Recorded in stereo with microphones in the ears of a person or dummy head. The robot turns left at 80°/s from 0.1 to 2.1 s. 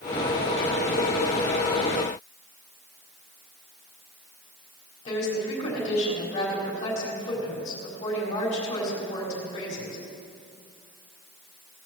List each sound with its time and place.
5.0 s a woman speaking: 45° left (ahead or behind), 4.5 m